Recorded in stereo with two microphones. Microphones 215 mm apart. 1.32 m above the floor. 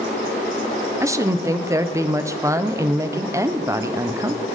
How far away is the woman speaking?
About 0.6 m.